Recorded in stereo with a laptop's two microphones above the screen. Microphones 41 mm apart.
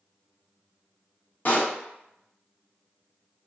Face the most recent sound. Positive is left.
turn(degrees=40)  # may be behind; listen again after turning